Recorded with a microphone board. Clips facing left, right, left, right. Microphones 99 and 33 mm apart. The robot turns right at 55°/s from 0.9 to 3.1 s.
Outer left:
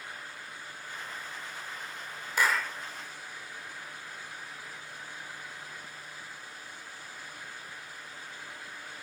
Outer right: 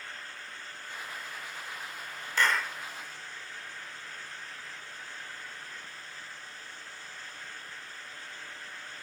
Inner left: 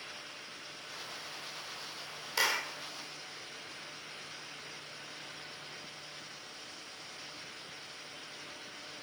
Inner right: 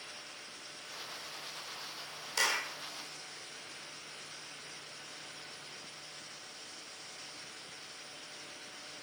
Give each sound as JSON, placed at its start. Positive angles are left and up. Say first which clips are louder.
{"t": 2.4, "sound": "a clap", "louder": "even, inner left 1 dB", "side_deg": 10, "distance_m": 1.8}